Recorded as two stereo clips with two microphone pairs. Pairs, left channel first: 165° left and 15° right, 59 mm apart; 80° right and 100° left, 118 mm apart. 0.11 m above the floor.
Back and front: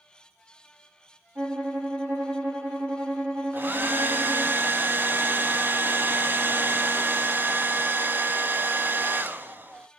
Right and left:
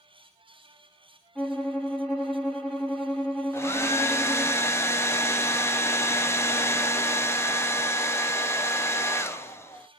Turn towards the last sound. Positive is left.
turn(degrees=-35)